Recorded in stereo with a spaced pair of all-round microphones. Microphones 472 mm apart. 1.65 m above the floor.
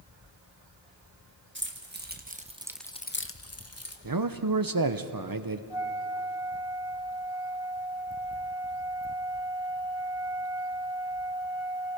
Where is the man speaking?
50° right (ahead or behind), 0.8 m.